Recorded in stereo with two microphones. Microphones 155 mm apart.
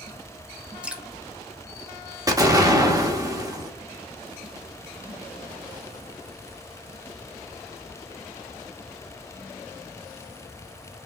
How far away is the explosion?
About 0.9 m.